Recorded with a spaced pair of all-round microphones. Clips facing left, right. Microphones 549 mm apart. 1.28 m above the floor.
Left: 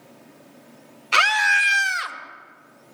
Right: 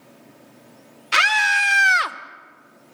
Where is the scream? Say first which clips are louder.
Even; 40° right (ahead or behind), 1.1 m; by 2.2 s 70° right (ahead or behind), 0.8 m.